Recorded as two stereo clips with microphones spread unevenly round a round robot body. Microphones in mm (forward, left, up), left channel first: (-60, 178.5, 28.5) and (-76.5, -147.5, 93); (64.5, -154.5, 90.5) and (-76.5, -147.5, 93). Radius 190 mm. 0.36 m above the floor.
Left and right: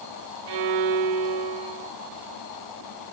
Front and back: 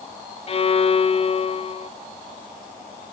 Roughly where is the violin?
Ahead right.